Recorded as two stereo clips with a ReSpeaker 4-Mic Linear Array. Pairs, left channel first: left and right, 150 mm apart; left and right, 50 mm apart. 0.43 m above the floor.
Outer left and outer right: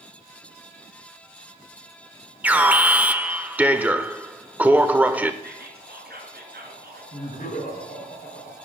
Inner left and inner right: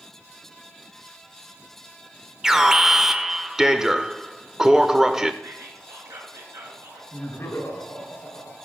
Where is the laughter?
60° left (ahead or behind), 4.5 m.